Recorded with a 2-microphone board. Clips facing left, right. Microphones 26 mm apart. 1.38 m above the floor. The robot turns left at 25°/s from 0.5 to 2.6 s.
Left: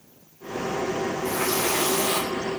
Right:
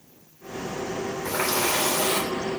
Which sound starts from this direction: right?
A running tap, at 1.2 s.